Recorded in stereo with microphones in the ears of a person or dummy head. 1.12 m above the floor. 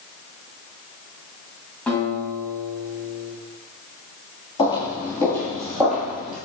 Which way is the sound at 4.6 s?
25° left (ahead or behind).